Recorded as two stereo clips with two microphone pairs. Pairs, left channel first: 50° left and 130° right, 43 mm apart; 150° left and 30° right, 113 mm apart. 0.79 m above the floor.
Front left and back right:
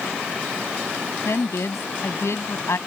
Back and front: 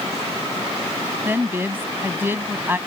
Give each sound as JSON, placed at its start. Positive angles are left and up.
{"t": 1.2, "sound": "a woman speaking", "azimuth_deg": 40}